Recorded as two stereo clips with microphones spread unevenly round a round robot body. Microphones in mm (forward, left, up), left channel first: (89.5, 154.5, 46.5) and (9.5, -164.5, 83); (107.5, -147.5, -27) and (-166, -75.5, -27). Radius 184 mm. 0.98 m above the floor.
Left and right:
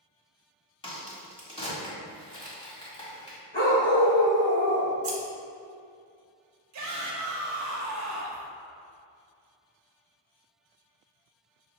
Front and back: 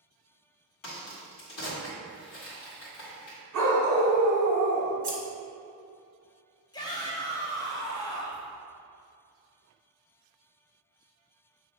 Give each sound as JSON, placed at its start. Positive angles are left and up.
{"t": 0.8, "sound": "a crack", "azimuth_deg": 5, "distance_m": 1.8}
{"t": 3.5, "sound": "a dog barking", "azimuth_deg": 145, "distance_m": 1.7}
{"t": 5.0, "sound": "scissors", "azimuth_deg": -150, "distance_m": 1.2}
{"t": 6.7, "sound": "a shout", "azimuth_deg": -85, "distance_m": 1.1}